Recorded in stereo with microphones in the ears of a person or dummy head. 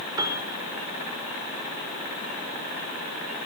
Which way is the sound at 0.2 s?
20° right (ahead or behind).